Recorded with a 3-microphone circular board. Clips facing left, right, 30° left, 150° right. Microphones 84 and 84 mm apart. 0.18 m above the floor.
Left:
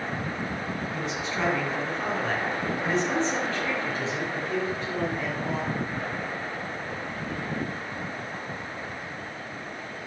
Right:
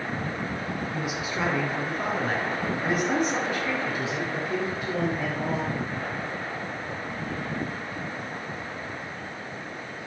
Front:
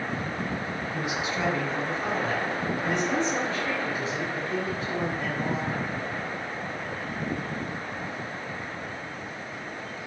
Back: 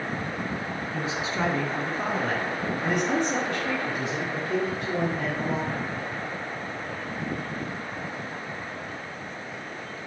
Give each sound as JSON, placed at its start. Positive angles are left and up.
{"t": 0.9, "sound": "a man speaking", "azimuth_deg": -165, "distance_m": 1.5}